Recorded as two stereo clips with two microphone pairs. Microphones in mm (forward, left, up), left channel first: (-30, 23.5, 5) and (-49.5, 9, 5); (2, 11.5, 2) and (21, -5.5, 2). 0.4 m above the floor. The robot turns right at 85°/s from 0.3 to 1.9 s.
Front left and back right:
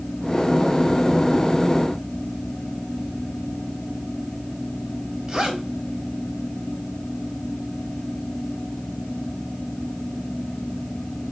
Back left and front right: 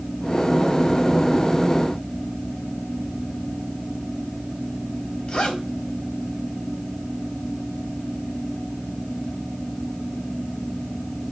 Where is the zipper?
165° left, 1.8 m.